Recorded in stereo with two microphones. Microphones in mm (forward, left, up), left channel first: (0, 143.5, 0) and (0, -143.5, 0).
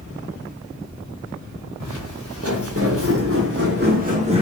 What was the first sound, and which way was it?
Footsteps, 60° right (ahead or behind).